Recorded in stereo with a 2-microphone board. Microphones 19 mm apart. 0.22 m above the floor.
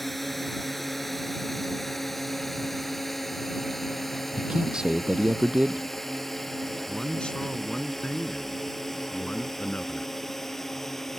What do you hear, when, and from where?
0.0 s a drone: 5° left (ahead or behind); by 11.2 s 15° left (ahead or behind)
4.4 s a man speaking: 45° right (ahead or behind)
6.9 s a man speaking: 55° left (ahead or behind)